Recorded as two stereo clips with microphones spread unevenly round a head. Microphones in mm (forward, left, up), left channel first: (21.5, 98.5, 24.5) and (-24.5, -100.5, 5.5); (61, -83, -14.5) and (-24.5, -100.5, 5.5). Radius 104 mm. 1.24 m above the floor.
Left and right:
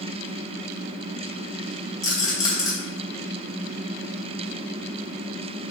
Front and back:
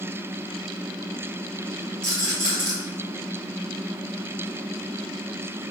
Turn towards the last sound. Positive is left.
turn(degrees=150)